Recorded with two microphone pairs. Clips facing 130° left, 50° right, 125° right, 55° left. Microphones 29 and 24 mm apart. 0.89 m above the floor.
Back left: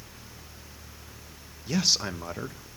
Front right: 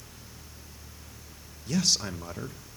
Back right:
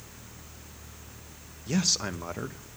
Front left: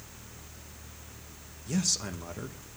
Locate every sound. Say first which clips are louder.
1.7 s a man speaking: back left 1 dB, back right 3 dB; 165° right, 0.6 m